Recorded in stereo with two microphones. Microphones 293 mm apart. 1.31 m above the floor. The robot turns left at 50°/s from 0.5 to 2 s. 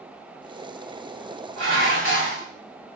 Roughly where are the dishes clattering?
Right.